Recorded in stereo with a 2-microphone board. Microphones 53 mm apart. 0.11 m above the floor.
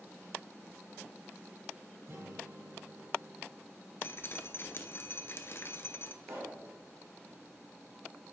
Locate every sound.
2.1 s a guitar: 65° right (ahead or behind), 2.5 m
4.0 s dripping: 45° left (ahead or behind), 0.7 m
6.2 s a pop: 75° right (ahead or behind), 2.5 m